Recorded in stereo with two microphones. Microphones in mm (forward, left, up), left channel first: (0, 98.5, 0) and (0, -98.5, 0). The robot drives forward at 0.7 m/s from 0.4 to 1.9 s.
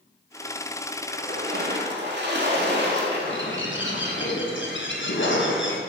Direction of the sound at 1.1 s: 50° right (ahead or behind).